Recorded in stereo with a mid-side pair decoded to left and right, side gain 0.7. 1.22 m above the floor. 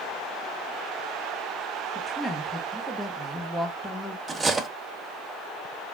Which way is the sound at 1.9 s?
5° left.